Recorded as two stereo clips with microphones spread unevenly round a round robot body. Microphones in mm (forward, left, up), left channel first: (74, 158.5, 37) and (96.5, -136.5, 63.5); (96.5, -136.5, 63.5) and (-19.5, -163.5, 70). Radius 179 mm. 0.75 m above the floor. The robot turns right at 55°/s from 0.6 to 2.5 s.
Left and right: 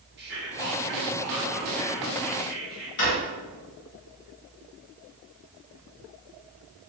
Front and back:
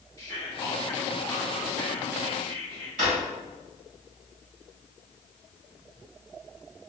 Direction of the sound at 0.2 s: 40° right.